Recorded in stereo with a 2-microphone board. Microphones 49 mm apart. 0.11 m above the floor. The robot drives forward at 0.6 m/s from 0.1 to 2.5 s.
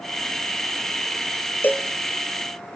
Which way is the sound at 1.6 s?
40° left (ahead or behind).